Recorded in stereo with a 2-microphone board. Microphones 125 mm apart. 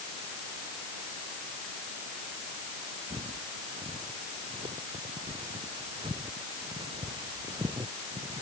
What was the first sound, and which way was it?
Footsteps, 50° right (ahead or behind).